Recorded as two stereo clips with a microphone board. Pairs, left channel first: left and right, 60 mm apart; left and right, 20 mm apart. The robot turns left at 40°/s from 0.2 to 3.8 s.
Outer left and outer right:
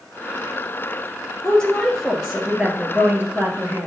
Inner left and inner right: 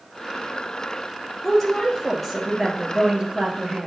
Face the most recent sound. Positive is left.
turn(degrees=-75)